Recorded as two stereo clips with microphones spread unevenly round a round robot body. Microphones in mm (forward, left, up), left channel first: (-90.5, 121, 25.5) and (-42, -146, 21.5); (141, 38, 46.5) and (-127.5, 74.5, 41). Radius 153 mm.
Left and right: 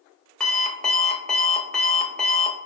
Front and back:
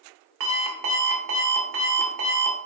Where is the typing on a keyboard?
I don't hear typing on a keyboard.